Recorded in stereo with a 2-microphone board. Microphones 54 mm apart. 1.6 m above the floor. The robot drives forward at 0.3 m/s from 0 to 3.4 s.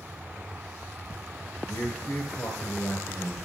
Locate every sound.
1.7 s a man speaking: 60° left (ahead or behind), 1.3 m; by 3.3 s 85° left, 1.1 m